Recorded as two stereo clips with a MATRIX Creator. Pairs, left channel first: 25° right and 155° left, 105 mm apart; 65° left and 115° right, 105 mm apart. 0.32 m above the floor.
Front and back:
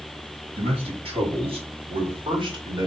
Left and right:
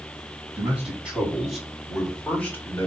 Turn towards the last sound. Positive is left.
turn(degrees=130)